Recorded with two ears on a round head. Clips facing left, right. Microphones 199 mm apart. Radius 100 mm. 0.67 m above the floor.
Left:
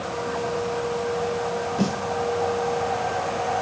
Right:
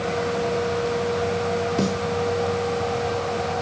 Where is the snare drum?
35° right (ahead or behind), 5 m.